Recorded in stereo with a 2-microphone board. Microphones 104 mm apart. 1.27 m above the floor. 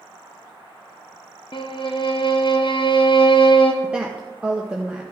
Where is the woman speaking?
10° right (ahead or behind), 1.0 m.